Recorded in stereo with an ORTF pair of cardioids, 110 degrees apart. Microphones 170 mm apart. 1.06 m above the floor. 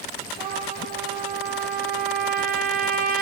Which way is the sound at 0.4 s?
65° right.